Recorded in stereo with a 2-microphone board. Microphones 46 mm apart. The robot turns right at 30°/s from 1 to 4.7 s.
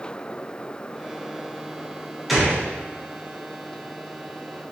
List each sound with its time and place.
2.3 s a gunshot: centre (ahead or behind), 0.6 m; by 2.6 s 5° left (ahead or behind), 0.6 m